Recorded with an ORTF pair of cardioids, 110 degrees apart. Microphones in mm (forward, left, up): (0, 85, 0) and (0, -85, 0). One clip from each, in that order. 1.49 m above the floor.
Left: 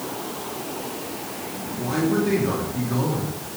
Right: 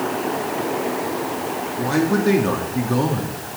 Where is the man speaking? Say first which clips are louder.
Right 3 dB; 40° right, 2.5 m.